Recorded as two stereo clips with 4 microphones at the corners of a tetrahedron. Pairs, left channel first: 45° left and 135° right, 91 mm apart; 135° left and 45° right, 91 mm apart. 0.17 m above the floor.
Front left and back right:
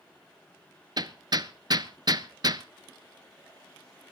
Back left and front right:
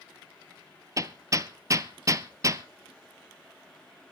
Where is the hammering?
95° right, 0.7 m.